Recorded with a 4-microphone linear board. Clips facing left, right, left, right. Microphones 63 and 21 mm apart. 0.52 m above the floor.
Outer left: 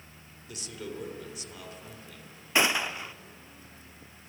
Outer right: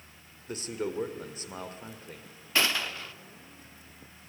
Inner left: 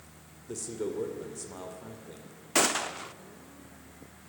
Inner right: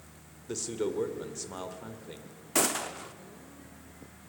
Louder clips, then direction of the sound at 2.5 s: Outer left 3 dB, inner left 3 dB; 20° left (ahead or behind).